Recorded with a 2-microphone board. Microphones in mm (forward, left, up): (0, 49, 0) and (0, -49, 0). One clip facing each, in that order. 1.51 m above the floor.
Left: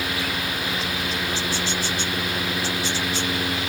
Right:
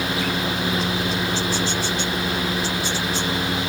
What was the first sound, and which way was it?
Only background noise.